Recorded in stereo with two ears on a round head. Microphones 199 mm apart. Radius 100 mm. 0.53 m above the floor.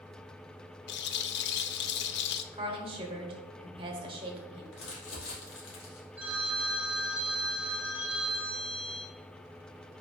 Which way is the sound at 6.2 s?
5° right (ahead or behind).